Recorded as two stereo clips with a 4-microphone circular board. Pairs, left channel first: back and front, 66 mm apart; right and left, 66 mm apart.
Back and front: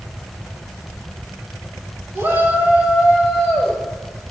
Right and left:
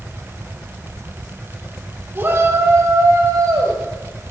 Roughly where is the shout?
Ahead left.